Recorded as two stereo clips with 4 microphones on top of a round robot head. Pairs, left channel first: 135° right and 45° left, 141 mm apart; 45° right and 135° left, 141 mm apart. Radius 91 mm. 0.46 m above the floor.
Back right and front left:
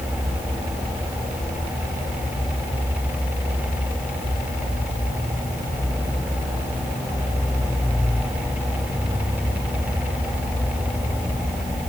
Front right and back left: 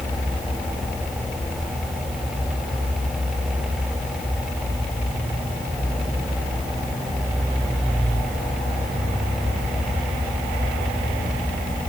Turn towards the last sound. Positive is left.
No sound to turn to.